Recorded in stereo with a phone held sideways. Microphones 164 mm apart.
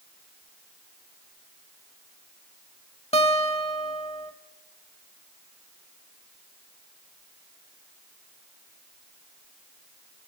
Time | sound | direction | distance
3.1 | a guitar | 40° left (ahead or behind) | 0.9 m